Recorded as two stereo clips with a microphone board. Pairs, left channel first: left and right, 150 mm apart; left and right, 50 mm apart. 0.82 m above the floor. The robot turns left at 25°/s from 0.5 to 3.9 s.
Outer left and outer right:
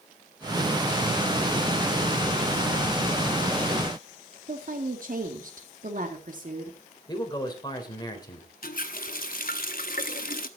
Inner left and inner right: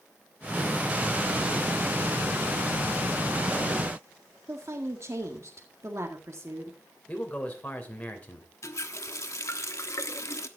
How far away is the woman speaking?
About 1.8 m.